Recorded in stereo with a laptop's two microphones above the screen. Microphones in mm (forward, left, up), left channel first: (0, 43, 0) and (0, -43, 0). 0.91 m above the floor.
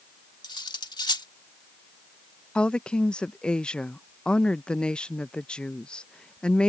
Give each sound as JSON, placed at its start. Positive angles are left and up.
{"t": 0.4, "sound": "cutlery clinking", "side_deg": 60}
{"t": 2.5, "sound": "a woman speaking", "side_deg": 10}